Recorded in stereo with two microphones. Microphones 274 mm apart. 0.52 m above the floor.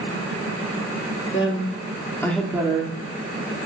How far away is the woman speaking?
About 0.9 m.